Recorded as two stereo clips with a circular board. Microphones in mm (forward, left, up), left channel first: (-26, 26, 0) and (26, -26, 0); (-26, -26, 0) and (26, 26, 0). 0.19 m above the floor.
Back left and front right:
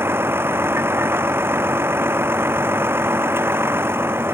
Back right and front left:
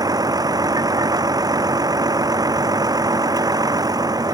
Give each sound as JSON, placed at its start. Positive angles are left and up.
{"t": 0.0, "sound": "a vehicle", "azimuth_deg": 15}